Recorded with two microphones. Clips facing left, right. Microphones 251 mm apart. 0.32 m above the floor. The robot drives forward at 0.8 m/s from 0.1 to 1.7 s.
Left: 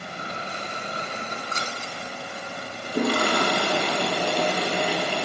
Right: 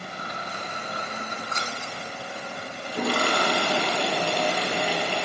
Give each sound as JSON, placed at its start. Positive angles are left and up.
{"t": 1.5, "sound": "scissors", "side_deg": 35, "distance_m": 3.0}
{"t": 2.8, "sound": "a toilet flushing", "side_deg": 45, "distance_m": 4.5}